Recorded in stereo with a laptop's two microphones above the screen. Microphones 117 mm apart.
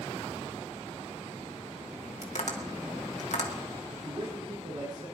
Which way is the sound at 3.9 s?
65° right (ahead or behind).